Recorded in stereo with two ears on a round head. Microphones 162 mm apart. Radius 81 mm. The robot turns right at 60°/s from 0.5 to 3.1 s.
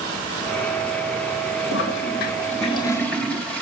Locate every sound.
1.7 s a toilet flushing: 90° left, 1.8 m; by 3.6 s 175° left, 1.8 m